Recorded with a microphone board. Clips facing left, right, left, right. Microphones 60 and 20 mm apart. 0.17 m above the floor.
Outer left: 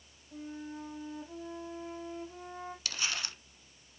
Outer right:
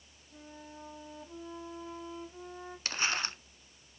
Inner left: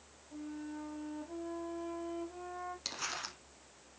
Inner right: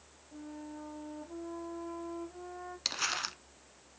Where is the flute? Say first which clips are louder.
Outer left 7 dB, inner left 2 dB; 50° left (ahead or behind), 3.5 m.